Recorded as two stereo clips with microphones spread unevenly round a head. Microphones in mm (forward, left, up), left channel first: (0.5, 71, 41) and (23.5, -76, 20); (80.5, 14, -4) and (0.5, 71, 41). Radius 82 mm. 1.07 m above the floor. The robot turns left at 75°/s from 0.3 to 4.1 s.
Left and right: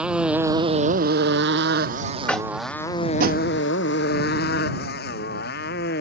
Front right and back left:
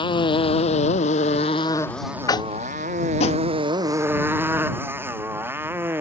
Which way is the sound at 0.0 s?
5° left.